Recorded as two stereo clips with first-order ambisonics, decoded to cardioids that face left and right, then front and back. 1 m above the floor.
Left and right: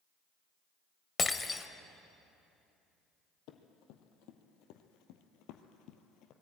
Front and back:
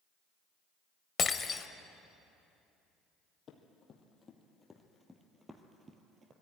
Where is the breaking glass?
35° left, 0.8 m.